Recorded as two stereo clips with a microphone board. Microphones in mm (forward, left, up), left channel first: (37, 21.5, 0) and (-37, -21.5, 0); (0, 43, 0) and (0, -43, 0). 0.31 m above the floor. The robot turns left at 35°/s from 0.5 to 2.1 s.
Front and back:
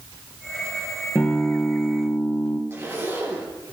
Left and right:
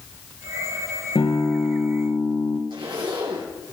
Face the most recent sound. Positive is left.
turn(degrees=-90)